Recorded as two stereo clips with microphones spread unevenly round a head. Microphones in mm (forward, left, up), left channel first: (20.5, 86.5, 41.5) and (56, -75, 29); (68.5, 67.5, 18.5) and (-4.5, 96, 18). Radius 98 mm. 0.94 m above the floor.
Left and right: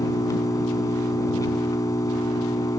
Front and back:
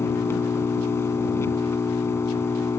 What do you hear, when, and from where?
0.0 s an engine running: 35° left